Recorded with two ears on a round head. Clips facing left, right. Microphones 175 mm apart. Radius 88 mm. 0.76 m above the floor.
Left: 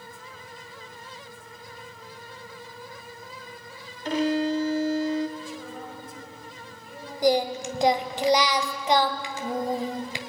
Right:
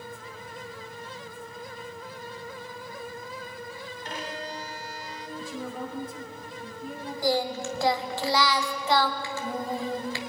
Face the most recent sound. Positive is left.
turn(degrees=15)  # may be behind; listen again after turning